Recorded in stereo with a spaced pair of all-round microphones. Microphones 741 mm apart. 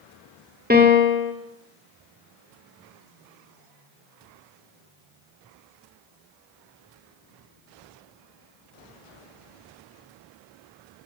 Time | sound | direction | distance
0.7 | a piano | 10° right (ahead or behind) | 2.5 m